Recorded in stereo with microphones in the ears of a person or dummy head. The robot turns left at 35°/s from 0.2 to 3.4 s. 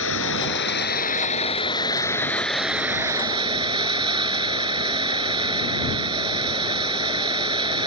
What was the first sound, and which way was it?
Running water, 80° left.